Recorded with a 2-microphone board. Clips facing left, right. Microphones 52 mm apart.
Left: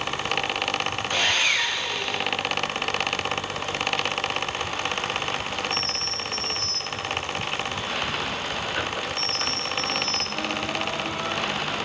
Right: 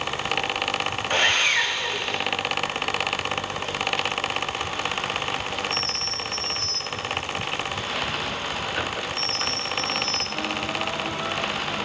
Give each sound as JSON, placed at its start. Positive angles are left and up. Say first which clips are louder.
{"t": 1.1, "sound": "sawing", "louder": "right 3 dB", "side_deg": -45, "distance_m": 2.0}